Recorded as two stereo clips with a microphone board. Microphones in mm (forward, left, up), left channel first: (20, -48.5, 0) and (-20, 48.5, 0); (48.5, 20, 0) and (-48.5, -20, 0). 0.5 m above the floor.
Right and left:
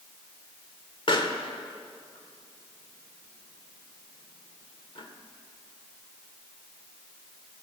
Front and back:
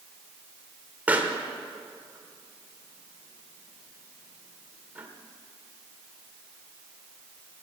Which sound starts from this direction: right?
A pop, at 1.1 s.